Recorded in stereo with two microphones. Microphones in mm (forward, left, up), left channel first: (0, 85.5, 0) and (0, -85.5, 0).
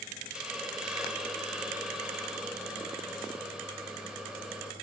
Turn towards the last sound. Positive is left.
turn(degrees=-5)  # may be behind; listen again after turning